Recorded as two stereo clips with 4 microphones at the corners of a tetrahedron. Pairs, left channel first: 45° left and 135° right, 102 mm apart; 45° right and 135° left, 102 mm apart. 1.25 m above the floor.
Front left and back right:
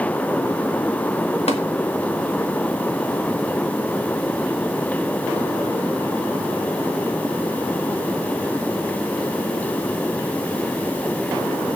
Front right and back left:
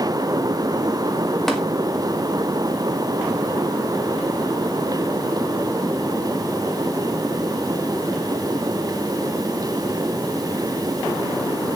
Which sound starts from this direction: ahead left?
Tapping, at 1.5 s.